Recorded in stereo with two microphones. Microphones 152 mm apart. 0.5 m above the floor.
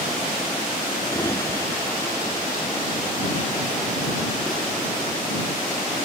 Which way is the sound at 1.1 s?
20° left (ahead or behind).